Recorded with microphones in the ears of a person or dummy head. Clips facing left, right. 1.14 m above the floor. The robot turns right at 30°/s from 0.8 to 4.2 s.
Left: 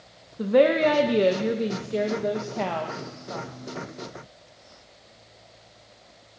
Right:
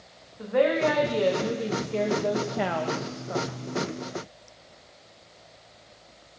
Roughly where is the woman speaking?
Behind left.